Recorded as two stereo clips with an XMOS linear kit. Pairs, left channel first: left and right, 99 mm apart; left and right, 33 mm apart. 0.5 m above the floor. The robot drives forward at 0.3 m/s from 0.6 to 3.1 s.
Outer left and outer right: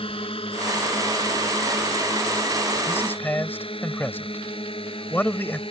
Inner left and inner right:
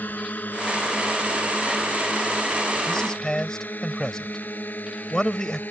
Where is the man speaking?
20° left (ahead or behind).